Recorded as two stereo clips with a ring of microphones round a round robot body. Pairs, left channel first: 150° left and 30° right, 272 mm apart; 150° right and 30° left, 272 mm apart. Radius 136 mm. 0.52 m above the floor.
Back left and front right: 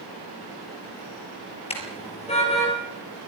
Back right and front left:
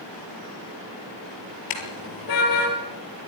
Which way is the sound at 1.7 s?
140° right.